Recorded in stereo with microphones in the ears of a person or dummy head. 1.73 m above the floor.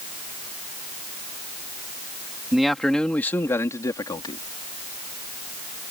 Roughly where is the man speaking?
Centre.